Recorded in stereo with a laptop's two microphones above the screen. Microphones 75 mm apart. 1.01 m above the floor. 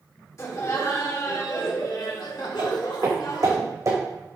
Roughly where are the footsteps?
Right.